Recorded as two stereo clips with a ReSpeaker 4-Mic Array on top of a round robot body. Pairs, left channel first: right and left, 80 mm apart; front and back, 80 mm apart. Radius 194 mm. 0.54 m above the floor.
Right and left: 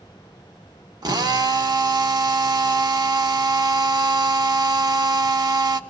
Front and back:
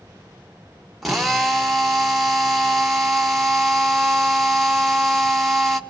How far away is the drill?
About 1.7 m.